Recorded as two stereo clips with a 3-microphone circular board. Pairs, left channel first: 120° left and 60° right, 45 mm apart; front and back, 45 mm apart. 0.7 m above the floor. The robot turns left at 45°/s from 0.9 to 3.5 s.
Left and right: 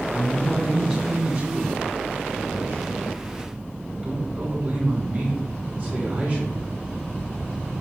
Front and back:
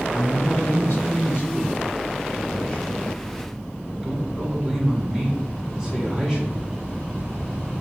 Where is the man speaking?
Straight ahead, 1.5 m; by 6.8 s 115° right, 1.5 m.